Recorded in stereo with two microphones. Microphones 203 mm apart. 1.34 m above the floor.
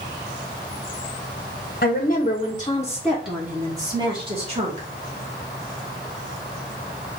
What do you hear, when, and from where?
1.8 s a woman speaking: 50° left (ahead or behind), 1.0 m; by 4.9 s 35° right (ahead or behind), 1.5 m